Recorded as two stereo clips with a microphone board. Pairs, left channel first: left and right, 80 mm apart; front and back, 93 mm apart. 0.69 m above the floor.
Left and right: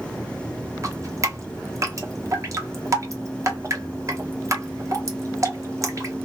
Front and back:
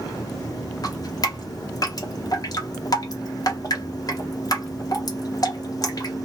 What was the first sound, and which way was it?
Dripping, 45° right.